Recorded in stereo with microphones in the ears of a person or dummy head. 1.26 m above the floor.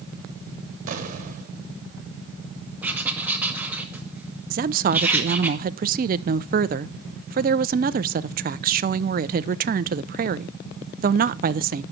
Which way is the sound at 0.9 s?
45° right (ahead or behind).